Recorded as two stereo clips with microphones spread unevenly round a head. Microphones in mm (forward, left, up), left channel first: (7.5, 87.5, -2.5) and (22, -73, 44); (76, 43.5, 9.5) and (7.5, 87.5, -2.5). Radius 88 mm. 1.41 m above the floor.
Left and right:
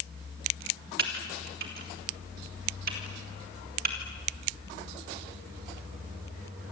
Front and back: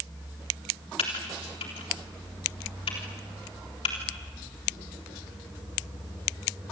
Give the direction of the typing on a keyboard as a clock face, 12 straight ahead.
2 o'clock.